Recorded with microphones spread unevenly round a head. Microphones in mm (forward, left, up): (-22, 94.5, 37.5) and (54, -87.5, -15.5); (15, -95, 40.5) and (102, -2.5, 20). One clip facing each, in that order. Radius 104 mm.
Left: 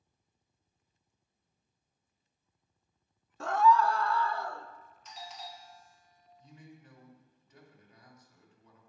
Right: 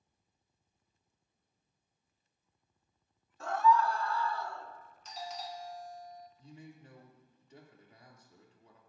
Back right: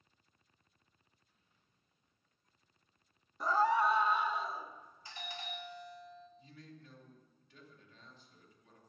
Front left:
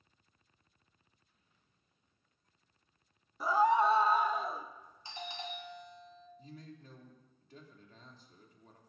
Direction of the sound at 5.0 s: 20° right.